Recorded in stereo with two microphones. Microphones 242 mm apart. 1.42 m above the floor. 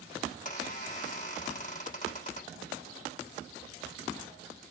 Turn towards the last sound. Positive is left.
turn(degrees=35)  # may be behind; listen again after turning